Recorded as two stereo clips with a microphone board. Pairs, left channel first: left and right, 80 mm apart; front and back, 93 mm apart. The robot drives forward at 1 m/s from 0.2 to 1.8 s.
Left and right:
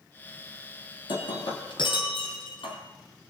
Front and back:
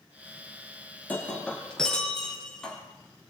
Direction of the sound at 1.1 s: 75° left.